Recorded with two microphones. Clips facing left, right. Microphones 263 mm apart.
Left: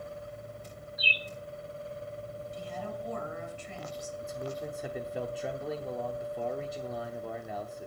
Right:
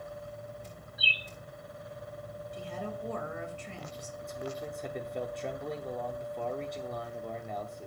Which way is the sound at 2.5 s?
60° right (ahead or behind).